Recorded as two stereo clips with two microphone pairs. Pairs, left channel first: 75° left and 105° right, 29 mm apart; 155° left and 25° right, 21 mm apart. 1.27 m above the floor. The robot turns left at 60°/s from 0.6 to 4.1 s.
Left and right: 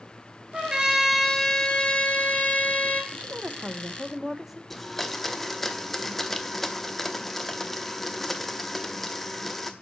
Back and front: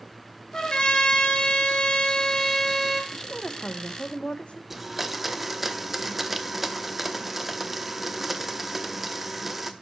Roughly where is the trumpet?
Behind.